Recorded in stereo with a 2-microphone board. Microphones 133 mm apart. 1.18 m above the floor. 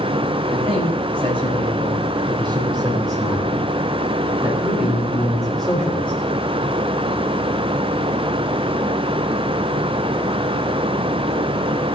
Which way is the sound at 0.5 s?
50° right (ahead or behind).